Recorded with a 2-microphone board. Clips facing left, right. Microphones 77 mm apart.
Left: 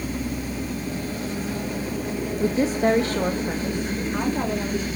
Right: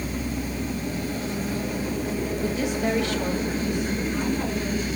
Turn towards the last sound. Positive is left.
turn(degrees=35)  # may be behind; listen again after turning